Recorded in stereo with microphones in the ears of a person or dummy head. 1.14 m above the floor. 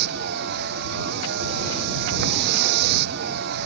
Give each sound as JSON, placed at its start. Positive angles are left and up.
{"t": 0.0, "sound": "a vehicle", "side_deg": -55}